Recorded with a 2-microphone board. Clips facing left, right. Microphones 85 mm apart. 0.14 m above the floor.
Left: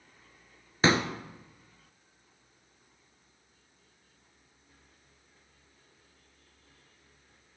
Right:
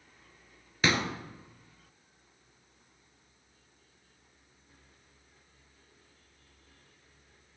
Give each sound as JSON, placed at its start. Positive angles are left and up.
{"t": 0.8, "sound": "a pop", "side_deg": 30, "distance_m": 1.0}